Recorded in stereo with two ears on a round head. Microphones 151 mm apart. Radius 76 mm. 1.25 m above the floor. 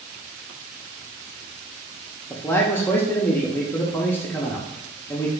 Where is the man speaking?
15° left (ahead or behind), 0.6 m.